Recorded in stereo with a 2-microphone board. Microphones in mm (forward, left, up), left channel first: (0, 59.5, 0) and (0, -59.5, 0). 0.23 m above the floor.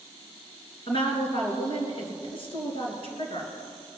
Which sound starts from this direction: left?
A woman speaking, at 0.9 s.